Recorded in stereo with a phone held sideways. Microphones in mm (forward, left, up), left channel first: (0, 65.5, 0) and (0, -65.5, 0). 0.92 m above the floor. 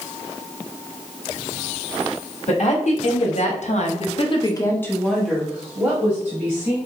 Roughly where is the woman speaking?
Left.